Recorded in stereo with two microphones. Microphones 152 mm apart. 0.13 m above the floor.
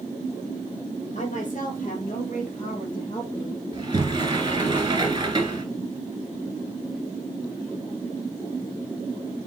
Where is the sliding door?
30° right (ahead or behind), 1.6 m.